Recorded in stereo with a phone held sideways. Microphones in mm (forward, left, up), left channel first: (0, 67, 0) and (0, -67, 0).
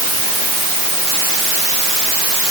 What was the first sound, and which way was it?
Only background noise.